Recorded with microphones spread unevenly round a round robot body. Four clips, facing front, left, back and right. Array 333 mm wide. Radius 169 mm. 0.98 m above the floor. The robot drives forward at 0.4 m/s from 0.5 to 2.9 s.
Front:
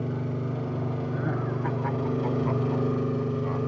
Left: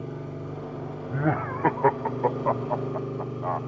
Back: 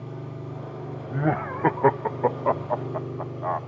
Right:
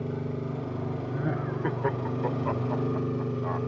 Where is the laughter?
145° left, 0.5 m; by 3.6 s 170° left, 1.1 m.